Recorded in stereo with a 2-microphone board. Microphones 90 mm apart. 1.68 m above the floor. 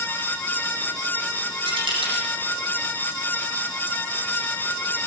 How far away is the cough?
I don't hear a cough.